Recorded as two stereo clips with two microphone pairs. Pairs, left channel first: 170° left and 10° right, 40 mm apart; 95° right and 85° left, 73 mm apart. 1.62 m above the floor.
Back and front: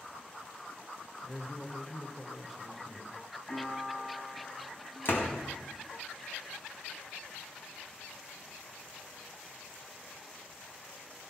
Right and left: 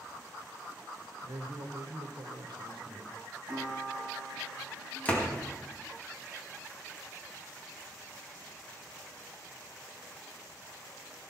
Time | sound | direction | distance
1.2 | a man speaking | 90° left | 1.3 m
3.5 | a piano | 130° left | 7 m
5.0 | a door slam | 165° right | 2 m